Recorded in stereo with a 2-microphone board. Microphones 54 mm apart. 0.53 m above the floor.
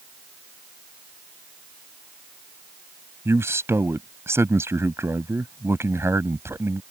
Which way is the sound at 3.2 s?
55° right (ahead or behind).